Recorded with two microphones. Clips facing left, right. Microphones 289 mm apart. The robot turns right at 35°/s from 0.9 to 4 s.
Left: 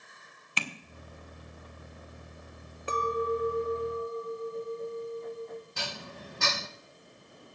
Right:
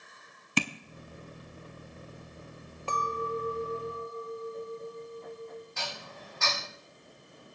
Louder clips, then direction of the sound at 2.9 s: Left 5 dB; 20° left (ahead or behind).